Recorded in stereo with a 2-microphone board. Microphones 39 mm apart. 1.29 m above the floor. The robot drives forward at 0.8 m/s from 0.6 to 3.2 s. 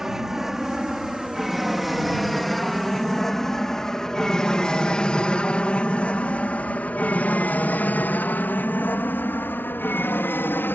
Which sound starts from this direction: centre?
An aircraft, at 0.0 s.